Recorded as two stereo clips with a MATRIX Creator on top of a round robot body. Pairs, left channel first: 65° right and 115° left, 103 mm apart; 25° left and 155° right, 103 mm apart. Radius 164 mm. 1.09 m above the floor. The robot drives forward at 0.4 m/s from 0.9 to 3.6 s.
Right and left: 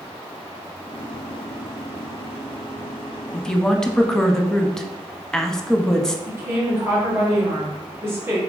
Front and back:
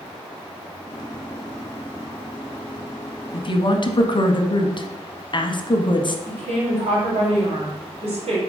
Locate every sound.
3.3 s a woman speaking: 15° left, 0.8 m
6.3 s a woman speaking: straight behind, 2 m